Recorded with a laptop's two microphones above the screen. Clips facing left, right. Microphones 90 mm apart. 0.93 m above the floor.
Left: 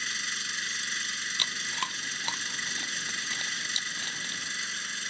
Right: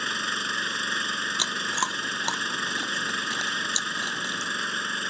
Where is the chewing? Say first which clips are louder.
Right 5 dB; 25° right (ahead or behind).